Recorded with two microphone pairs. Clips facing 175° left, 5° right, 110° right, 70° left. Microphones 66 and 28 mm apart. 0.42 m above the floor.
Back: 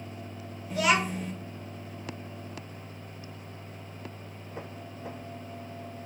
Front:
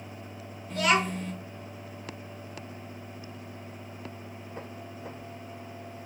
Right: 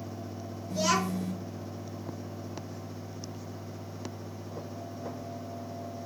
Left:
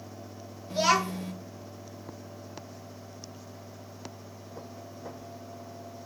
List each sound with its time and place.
0.7 s a child speaking: 90° left, 0.5 m